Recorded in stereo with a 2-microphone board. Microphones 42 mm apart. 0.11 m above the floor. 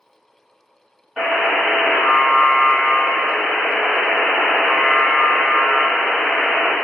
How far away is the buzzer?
About 1.2 m.